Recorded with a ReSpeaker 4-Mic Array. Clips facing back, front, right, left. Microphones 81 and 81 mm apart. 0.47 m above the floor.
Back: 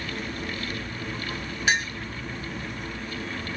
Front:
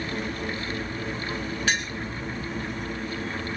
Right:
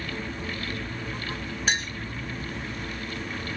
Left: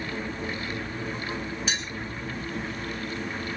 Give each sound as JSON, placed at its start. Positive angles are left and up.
{"t": 1.7, "sound": "a clink", "azimuth_deg": -115, "distance_m": 1.0}